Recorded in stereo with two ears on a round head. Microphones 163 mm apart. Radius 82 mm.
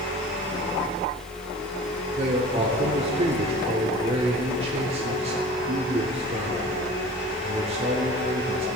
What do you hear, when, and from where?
2.2 s a man speaking: 30° right (ahead or behind), 1.0 m